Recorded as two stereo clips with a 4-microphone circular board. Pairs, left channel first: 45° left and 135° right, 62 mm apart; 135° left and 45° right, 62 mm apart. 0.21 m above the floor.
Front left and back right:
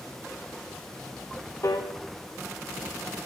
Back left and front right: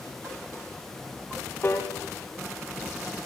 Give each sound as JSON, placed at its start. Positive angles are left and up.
{"t": 1.6, "sound": "a piano", "azimuth_deg": 80, "distance_m": 5.5}